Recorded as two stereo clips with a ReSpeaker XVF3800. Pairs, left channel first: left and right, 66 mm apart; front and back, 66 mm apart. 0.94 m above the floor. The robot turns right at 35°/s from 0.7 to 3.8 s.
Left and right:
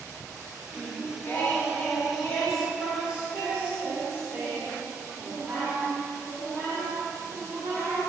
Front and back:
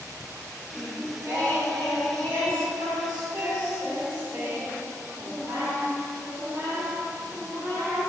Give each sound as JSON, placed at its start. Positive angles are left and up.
{"t": 0.7, "sound": "singing", "azimuth_deg": 115, "distance_m": 1.7}